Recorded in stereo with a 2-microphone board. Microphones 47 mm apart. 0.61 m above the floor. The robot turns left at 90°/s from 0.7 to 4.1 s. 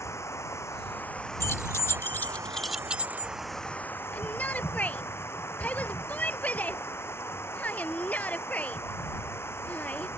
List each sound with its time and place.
0.0 s running water: 75° left; by 10.2 s 130° left
1.4 s keys jangling: 55° left (ahead or behind); by 3.3 s 50° right (ahead or behind)
4.1 s a shout: 35° left (ahead or behind)